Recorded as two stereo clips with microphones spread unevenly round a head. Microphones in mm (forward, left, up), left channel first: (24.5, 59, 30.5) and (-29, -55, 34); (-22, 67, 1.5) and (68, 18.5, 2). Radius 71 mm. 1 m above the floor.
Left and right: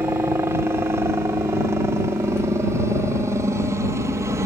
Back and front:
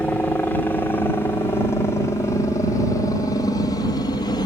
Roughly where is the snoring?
No snoring in this recording.